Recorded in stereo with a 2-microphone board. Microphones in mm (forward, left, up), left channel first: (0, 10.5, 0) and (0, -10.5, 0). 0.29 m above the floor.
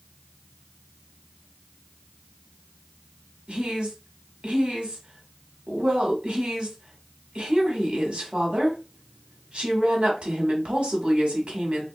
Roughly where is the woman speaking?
Right.